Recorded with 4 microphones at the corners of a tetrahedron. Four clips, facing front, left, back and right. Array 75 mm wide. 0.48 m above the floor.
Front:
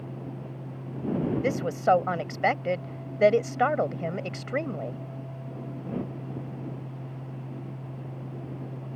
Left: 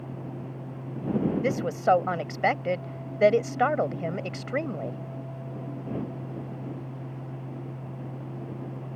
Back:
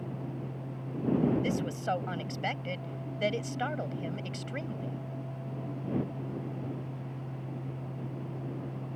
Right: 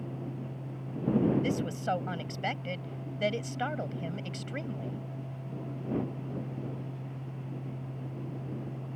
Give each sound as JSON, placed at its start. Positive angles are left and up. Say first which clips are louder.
{"t": 1.4, "sound": "a woman speaking", "louder": "left 7 dB, front 7 dB", "azimuth_deg": 45}